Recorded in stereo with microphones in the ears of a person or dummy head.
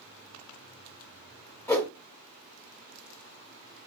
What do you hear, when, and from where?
1.7 s a whoosh: 15° left (ahead or behind), 0.6 m